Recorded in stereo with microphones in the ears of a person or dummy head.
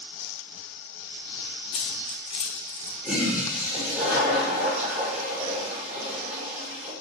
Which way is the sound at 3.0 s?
5° right (ahead or behind).